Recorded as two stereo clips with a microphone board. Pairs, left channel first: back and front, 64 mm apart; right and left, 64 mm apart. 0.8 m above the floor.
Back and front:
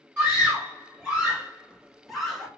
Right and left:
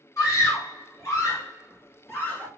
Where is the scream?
65° right, 1.7 m; by 2.5 s 100° right, 0.9 m.